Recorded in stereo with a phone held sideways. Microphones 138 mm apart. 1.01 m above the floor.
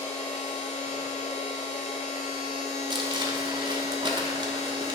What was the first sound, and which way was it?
A machine running, 55° left (ahead or behind).